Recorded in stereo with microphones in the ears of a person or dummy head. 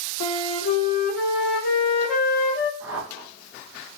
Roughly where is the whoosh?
Centre.